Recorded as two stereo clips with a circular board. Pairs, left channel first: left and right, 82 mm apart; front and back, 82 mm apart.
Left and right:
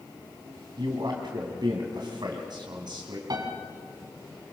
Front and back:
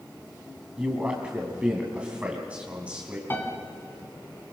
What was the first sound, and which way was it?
A man speaking, 105° right.